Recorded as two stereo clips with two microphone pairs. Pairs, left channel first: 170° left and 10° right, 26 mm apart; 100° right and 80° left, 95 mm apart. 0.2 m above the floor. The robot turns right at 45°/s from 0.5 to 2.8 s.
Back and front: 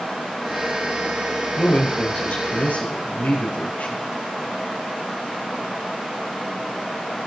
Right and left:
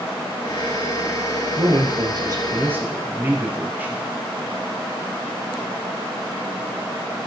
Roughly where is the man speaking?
Left.